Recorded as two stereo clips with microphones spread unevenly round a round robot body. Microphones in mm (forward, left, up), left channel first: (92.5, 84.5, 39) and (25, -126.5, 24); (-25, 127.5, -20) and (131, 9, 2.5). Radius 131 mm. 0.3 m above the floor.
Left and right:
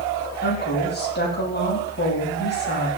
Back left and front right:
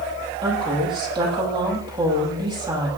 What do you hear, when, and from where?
0.4 s a woman speaking: 30° left, 8 m